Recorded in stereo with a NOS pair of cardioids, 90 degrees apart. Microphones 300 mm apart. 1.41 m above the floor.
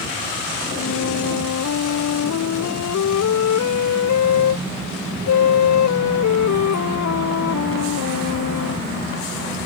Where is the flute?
60° left.